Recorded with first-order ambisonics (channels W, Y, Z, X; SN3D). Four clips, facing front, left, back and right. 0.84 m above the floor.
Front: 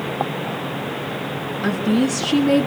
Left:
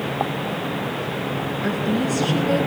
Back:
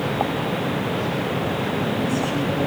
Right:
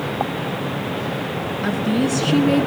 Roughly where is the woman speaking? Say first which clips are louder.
Right 3 dB, front 4 dB; ahead right.